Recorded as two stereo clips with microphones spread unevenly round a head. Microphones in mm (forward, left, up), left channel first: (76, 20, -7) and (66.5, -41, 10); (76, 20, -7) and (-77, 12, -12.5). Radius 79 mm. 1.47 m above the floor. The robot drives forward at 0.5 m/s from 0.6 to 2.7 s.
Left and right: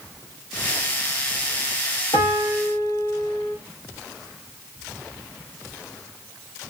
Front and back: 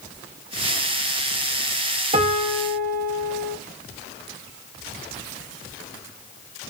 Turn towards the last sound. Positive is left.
turn(degrees=145)